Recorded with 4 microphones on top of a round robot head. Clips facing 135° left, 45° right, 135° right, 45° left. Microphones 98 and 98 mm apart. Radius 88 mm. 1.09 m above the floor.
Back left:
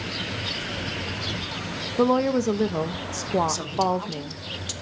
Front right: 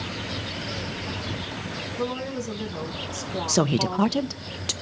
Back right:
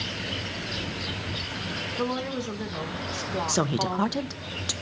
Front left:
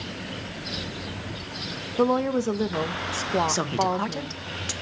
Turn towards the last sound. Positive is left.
turn(degrees=-60)